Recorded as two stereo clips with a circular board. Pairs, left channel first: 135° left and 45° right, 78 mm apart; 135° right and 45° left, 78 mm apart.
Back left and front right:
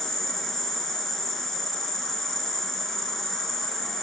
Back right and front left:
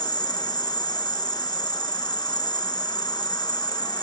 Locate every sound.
0.0 s an insect: 135° right, 1.2 m